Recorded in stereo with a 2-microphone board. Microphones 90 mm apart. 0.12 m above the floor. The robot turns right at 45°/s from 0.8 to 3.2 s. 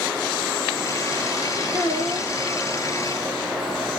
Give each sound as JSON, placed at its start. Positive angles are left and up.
{"t": 1.7, "sound": "a child speaking", "side_deg": -65, "distance_m": 2.5}